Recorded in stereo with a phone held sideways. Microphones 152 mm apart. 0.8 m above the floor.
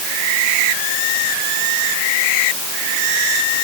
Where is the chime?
I don't hear a chime.